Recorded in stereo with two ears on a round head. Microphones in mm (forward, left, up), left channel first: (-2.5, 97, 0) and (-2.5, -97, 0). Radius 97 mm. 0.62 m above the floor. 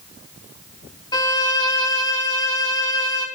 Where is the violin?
20° left (ahead or behind), 0.6 m.